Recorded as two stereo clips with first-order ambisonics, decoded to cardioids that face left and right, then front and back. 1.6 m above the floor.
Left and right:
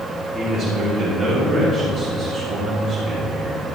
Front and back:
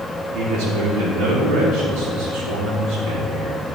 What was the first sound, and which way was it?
A man speaking, 165° left.